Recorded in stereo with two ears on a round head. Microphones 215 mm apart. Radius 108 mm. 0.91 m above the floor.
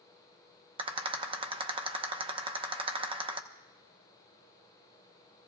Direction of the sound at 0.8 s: 25° right (ahead or behind).